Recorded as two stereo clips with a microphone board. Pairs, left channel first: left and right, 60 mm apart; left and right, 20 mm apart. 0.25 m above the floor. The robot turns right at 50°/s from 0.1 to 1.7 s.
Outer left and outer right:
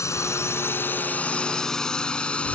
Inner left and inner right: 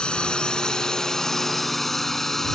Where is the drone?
55° left (ahead or behind); by 2.5 s 20° left (ahead or behind).